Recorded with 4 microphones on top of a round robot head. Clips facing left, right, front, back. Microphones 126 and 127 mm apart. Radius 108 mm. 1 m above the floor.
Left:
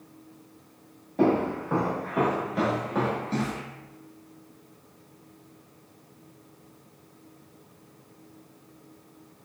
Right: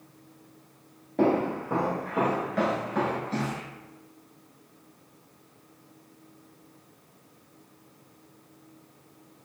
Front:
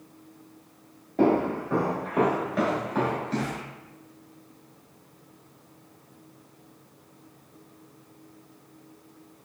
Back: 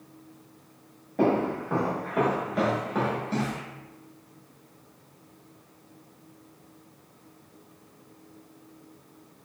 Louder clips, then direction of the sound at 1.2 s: Left 1 dB, front 2 dB; 60° right.